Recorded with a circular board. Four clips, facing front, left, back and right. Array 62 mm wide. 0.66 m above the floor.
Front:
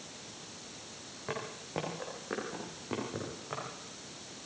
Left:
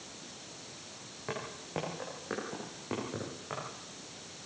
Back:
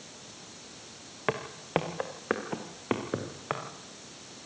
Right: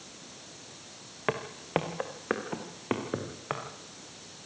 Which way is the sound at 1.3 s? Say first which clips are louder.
Right 9 dB, back 9 dB; 135° right.